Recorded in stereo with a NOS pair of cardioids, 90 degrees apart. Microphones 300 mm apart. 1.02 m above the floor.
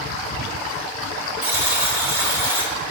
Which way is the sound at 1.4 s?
10° right.